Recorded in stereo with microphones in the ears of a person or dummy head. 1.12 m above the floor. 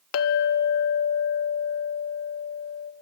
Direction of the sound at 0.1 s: 65° left (ahead or behind).